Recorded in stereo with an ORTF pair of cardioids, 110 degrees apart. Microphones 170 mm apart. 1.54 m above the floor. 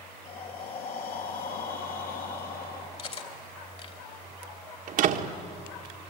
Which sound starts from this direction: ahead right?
A door slam, at 4.9 s.